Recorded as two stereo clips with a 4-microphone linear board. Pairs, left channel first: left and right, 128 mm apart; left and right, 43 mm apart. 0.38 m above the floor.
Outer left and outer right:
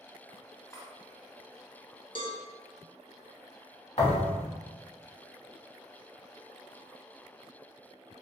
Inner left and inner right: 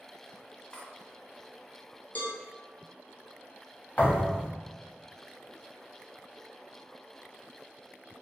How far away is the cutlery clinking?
About 0.6 m.